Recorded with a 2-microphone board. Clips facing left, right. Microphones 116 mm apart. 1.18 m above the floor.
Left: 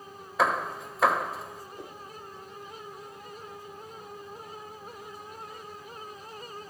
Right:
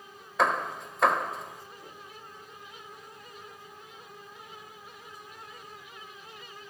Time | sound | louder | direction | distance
0.4 | hammering | even | centre (ahead or behind) | 0.9 m
1.8 | a whoosh | left 5 dB | 70° left (ahead or behind) | 3 m